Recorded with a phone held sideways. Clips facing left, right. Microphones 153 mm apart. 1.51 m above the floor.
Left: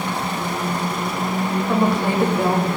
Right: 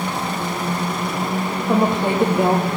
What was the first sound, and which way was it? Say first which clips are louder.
A woman speaking: right 2 dB; 25° right (ahead or behind).